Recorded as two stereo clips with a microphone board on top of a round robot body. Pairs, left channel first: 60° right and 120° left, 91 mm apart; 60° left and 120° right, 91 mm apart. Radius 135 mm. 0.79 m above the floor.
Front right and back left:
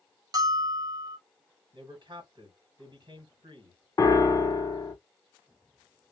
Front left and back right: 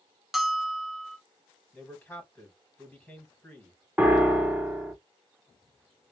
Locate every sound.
0.3 s a bell: 155° left, 0.9 m
1.7 s a man speaking: 130° left, 1.4 m
4.0 s a piano: 60° right, 0.8 m